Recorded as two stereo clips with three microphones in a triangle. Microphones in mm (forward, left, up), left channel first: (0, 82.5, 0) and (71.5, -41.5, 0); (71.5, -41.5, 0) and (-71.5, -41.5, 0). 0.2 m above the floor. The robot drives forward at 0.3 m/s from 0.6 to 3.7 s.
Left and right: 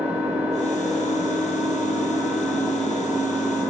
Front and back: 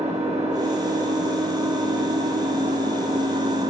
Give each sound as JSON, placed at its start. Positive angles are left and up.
{"t": 0.0, "sound": "an engine running", "azimuth_deg": -140, "distance_m": 4.5}